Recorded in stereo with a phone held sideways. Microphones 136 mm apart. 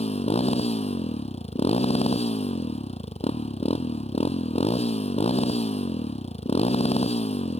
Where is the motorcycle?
50° left (ahead or behind).